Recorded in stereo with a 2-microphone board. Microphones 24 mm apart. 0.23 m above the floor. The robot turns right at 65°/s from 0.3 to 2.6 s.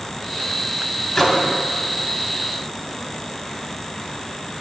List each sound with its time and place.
1.1 s a microwave: 15° left (ahead or behind), 0.9 m; by 1.5 s 25° left (ahead or behind), 0.9 m